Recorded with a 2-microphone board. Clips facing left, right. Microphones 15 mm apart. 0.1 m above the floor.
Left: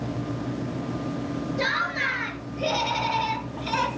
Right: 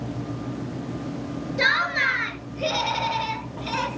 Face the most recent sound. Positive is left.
turn(degrees=10)  # may be behind; listen again after turning